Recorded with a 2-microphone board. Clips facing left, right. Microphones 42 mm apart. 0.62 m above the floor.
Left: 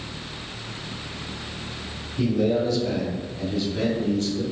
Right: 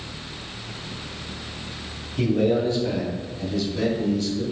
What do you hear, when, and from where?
2.2 s a man speaking: 50° right (ahead or behind), 1.0 m; by 4.4 s 45° left (ahead or behind), 1.4 m